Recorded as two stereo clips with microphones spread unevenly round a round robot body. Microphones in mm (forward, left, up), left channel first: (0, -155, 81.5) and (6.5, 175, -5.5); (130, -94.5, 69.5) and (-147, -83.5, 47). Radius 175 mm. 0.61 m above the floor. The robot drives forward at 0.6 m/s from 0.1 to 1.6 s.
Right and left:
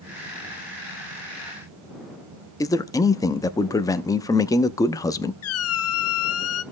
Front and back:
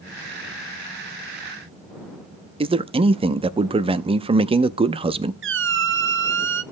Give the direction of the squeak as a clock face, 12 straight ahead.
5 o'clock.